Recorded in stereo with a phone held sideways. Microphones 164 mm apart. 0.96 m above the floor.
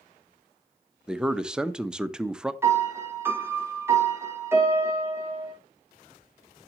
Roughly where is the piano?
Centre.